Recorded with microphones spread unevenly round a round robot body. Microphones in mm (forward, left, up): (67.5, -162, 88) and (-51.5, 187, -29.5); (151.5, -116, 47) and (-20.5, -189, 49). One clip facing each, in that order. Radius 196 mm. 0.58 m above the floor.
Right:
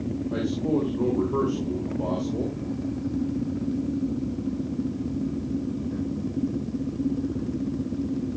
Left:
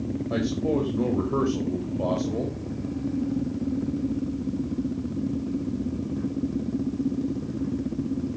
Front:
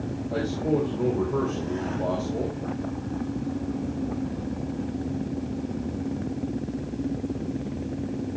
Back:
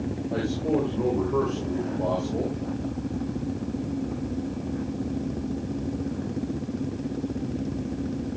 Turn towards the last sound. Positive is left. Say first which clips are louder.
# even, front 1 dB
turn(degrees=110)